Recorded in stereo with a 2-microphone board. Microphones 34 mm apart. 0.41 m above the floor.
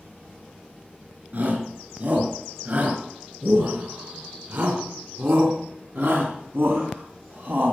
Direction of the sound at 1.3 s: 50° right (ahead or behind).